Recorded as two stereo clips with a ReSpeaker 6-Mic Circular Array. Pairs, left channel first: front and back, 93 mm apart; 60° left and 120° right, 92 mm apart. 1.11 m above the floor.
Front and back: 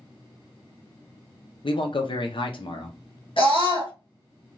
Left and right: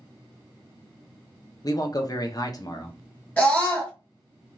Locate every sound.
1.6 s a man speaking: 15° left, 0.6 m
3.4 s a scream: 10° right, 1.8 m